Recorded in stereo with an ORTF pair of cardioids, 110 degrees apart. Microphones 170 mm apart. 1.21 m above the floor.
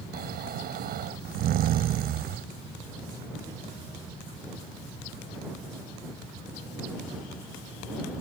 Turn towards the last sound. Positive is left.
turn(degrees=-65)